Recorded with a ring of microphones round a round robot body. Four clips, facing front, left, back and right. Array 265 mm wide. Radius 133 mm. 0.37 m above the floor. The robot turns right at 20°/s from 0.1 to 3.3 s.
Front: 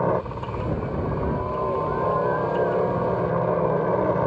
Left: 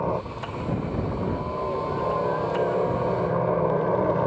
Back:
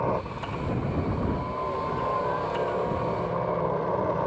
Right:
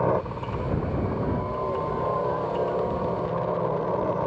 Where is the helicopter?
30° right; by 4.3 s 30° left.